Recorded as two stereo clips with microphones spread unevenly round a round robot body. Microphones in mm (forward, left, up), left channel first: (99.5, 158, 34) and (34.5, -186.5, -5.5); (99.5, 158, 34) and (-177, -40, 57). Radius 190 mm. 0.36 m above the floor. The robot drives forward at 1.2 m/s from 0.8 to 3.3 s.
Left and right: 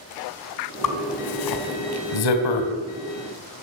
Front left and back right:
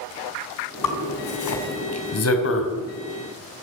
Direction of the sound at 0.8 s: 50° left.